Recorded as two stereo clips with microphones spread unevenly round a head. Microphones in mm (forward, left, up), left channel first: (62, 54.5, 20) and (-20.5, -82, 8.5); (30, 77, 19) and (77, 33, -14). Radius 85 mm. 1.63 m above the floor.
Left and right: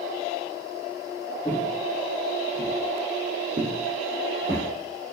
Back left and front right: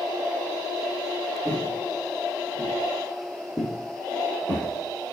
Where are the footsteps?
135° left, 1.8 m; by 4.7 s 160° right, 3 m.